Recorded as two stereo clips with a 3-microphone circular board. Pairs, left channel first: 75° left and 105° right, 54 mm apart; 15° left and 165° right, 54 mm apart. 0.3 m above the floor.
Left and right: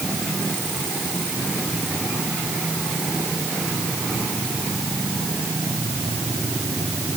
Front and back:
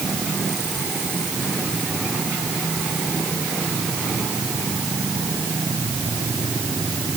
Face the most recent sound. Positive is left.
No sound to turn to.